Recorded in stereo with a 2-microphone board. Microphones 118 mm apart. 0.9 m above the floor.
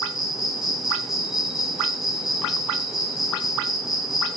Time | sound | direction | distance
0.0 | an insect | 5° right (ahead or behind) | 1.1 m